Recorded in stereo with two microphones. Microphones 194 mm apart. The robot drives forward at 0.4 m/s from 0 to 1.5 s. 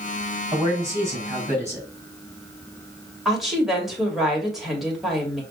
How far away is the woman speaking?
About 1.9 m.